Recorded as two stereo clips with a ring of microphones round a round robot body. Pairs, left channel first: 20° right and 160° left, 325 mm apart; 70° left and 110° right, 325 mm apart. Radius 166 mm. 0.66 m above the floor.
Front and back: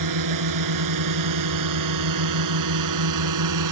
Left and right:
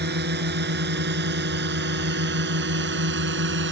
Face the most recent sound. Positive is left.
turn(degrees=-170)